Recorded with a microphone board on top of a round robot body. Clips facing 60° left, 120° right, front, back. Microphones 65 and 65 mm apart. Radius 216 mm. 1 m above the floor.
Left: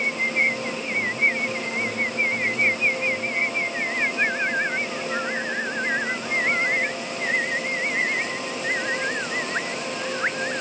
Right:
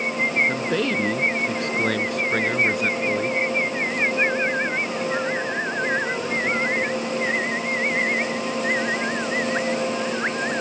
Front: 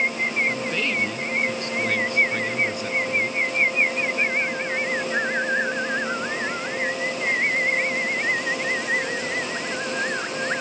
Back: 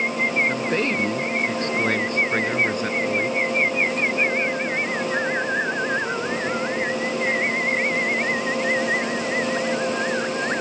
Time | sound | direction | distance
0.5 | a man speaking | 130° right | ?